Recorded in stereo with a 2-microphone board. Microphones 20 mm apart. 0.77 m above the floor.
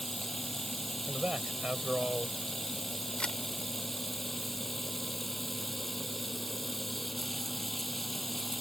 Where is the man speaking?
70° right (ahead or behind).